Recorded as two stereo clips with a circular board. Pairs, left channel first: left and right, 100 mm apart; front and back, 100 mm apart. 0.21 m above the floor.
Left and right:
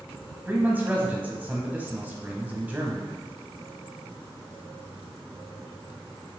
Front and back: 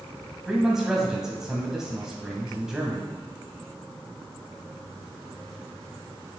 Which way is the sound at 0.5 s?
105° right.